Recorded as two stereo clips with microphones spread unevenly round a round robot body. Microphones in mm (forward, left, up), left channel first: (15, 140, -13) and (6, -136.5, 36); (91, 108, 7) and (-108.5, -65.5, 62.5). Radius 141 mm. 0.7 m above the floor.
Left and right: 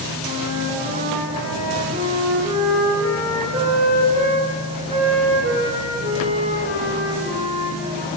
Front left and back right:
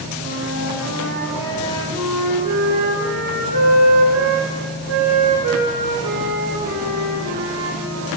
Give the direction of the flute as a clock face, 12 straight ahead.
5 o'clock.